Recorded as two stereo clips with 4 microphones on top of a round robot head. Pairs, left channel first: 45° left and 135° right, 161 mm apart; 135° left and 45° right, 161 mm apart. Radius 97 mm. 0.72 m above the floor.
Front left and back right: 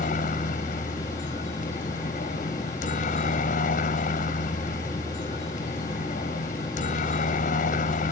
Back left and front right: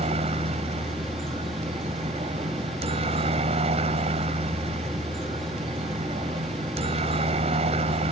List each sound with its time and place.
0.0 s a helicopter: 5° left